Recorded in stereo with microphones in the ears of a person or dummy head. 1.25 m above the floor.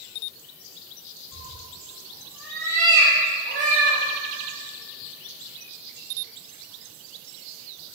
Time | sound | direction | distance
1.3 | a cat meowing | 25° left (ahead or behind) | 1.3 m